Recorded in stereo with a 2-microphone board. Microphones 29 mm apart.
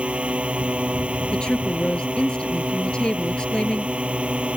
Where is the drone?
45° right (ahead or behind).